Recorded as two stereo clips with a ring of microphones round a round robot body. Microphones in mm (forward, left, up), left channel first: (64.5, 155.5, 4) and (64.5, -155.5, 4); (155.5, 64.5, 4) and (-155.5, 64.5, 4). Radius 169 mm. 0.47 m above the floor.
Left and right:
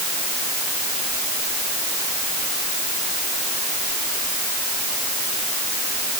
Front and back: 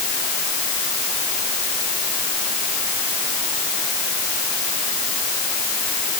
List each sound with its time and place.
Only background noise.